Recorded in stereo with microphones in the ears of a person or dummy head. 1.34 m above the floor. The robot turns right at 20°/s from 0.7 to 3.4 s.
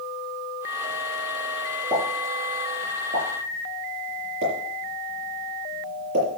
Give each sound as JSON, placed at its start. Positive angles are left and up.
{"t": 1.9, "sound": "a pop", "side_deg": -15, "distance_m": 6.0}